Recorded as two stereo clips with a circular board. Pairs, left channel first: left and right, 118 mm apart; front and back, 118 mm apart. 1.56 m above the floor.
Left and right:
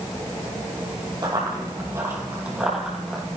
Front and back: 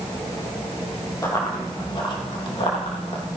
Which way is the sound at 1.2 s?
55° right.